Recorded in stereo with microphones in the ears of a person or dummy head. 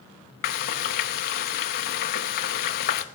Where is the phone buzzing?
No phone buzzing in this recording.